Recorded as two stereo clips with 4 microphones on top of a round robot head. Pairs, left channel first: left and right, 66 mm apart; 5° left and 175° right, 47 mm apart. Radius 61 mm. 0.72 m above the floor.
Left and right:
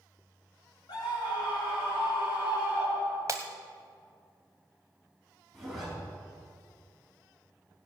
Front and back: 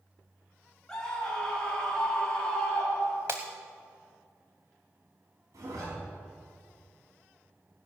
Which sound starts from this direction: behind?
A zipper, at 5.5 s.